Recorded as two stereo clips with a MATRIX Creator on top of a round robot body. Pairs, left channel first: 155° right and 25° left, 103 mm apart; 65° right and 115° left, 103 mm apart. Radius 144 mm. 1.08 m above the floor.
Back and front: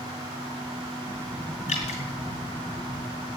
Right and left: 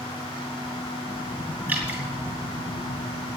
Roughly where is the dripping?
Behind.